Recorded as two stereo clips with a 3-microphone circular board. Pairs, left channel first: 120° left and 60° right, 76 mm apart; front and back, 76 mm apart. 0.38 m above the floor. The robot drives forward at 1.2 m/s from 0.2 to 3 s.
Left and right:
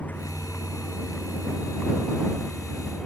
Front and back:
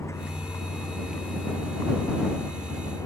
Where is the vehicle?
50° left; by 3.1 s 40° left.